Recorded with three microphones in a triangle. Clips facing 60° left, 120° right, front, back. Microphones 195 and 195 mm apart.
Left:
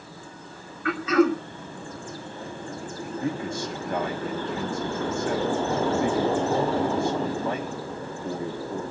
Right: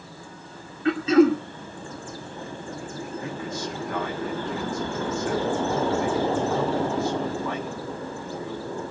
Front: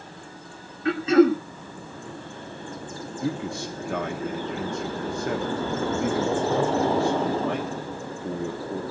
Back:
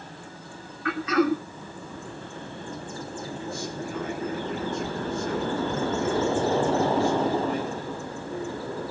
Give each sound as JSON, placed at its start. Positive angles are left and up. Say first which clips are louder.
{"t": 0.8, "sound": "throat clearing", "louder": "right 4 dB, front 6 dB", "azimuth_deg": -60, "distance_m": 2.0}
{"t": 3.2, "sound": "a man speaking", "louder": "left 6 dB, front 8 dB", "azimuth_deg": 0, "distance_m": 2.0}